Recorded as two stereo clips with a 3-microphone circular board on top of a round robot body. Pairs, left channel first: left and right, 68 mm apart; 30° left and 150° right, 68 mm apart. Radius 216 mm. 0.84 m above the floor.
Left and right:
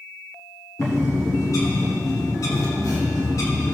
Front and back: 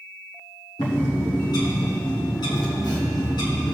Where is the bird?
50° left, 1.4 m.